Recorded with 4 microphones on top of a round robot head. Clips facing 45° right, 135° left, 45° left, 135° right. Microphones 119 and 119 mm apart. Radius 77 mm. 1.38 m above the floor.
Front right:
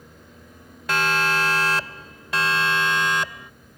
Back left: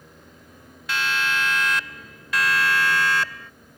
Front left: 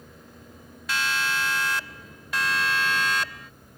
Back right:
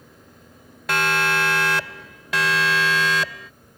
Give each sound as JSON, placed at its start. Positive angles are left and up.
{"t": 0.9, "sound": "a siren", "azimuth_deg": -95}